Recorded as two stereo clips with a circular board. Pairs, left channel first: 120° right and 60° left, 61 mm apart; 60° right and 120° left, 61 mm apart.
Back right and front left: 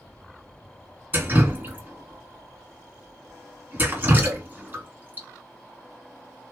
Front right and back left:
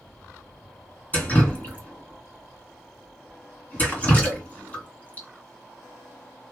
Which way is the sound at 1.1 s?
5° left.